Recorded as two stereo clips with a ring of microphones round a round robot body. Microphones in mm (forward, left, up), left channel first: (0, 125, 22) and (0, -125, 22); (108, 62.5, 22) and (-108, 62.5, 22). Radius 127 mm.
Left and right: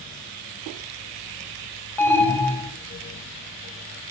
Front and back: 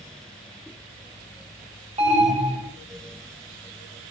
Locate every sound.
2.0 s an alarm: 165° left, 0.8 m